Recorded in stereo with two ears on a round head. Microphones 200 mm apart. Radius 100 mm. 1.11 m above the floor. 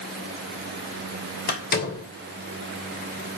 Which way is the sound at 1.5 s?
45° left (ahead or behind).